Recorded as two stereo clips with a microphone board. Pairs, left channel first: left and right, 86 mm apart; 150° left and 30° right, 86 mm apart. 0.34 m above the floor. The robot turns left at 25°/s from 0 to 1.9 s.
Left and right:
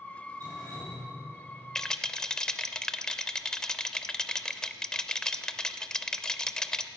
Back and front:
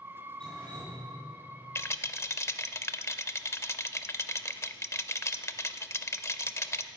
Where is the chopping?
I don't hear chopping.